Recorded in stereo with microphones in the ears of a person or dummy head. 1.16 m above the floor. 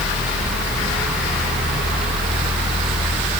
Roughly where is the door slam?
I don't hear a door slam.